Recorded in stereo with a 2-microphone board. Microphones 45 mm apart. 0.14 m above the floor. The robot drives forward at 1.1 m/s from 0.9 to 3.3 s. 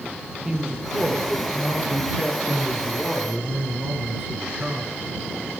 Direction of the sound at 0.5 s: 20° right (ahead or behind).